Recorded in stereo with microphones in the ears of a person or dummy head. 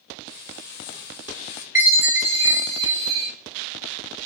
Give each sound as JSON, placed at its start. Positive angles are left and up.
{"t": 0.3, "sound": "frying", "side_deg": 55, "distance_m": 1.4}
{"t": 1.8, "sound": "a chime", "side_deg": -10, "distance_m": 3.0}